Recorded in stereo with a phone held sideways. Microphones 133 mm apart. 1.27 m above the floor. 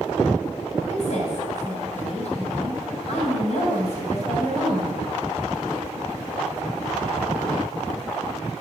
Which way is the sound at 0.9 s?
55° left (ahead or behind).